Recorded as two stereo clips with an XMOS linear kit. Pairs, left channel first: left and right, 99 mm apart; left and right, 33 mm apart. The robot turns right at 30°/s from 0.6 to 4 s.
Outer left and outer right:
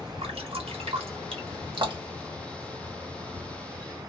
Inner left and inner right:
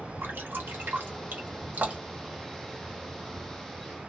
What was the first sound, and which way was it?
Dripping, 85° right.